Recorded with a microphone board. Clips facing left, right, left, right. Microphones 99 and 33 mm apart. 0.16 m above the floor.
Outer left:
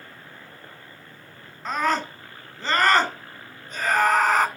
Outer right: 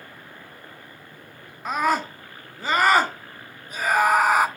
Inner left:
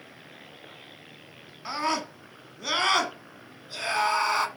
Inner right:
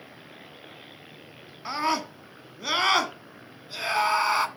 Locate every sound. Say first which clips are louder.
1.6 s a scream: outer right 1 dB, inner right 2 dB; 10° right (ahead or behind), 1.6 m